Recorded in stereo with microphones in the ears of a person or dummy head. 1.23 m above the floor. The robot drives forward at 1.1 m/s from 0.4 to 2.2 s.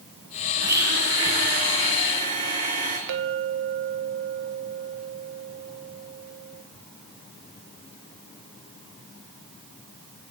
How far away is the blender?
About 4 m.